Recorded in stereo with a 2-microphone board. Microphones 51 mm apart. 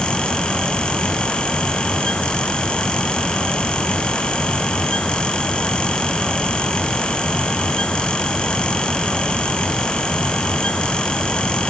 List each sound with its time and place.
Only background noise.